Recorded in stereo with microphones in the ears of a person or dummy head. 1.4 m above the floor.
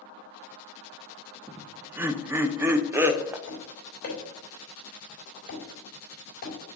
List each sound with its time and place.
1.5 s laughter: 15° right (ahead or behind), 0.6 m
3.5 s tapping: 50° left (ahead or behind), 3.5 m